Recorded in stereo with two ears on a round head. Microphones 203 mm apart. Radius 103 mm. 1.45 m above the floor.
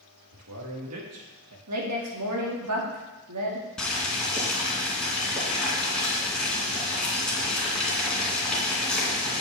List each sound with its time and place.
0.3 s a man speaking: 80° right, 2.5 m
1.7 s a woman speaking: 75° right (ahead or behind), 2.5 m
3.8 s boiling: 5° left (ahead or behind), 3 m